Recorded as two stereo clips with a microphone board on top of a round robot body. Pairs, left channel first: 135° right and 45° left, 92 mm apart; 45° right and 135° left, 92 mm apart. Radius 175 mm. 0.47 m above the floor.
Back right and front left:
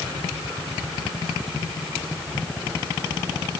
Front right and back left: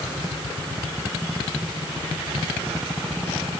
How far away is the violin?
I don't hear a violin.